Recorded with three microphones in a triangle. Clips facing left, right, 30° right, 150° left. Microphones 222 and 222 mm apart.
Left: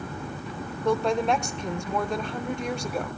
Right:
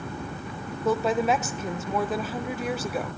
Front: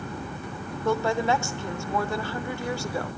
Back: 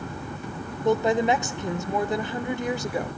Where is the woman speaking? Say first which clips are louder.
Even, back 3 dB; 170° right, 0.9 m.